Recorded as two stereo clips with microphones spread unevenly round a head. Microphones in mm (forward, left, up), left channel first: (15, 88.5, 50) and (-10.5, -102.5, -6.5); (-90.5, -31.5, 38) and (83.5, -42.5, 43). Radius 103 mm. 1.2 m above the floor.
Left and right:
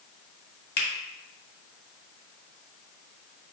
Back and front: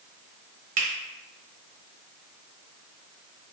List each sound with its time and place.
0.8 s a finger snap: 45° left, 1.0 m